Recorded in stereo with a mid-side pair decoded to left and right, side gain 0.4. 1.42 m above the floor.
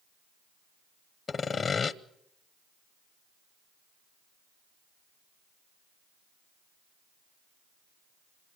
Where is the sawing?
50° left, 1.0 m.